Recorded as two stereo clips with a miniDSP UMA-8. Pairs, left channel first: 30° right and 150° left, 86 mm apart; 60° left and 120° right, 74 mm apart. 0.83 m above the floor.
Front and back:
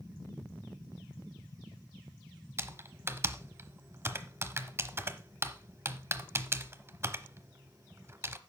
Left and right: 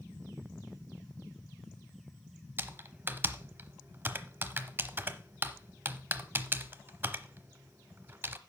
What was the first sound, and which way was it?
Typing on a keyboard, 165° right.